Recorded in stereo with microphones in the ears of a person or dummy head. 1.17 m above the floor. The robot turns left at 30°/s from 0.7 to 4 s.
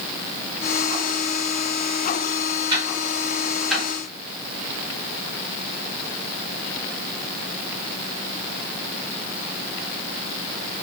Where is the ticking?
25° right (ahead or behind), 1.5 m; by 3.9 s 5° left (ahead or behind), 1.5 m.